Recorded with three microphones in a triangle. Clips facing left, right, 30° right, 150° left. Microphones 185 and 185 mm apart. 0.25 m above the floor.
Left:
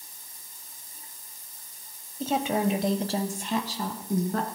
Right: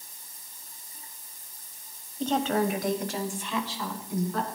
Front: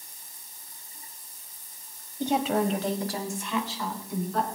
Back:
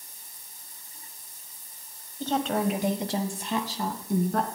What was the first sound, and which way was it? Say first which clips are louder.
A woman speaking: even, front 1 dB; 5° left.